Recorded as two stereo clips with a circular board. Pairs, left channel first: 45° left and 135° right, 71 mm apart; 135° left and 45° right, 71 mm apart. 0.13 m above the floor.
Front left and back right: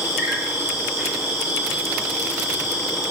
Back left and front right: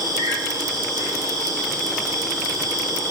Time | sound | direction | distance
0.0 | an insect | 70° right | 5.5 m